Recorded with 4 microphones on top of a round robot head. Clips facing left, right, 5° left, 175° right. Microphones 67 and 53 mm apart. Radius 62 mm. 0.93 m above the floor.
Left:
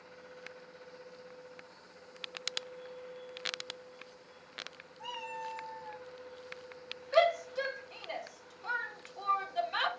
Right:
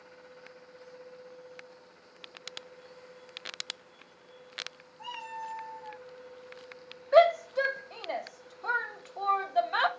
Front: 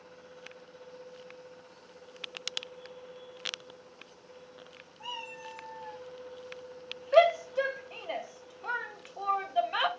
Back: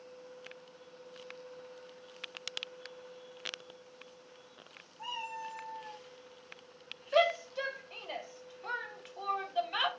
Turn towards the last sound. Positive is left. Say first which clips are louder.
# right 6 dB, front 6 dB
turn(degrees=-65)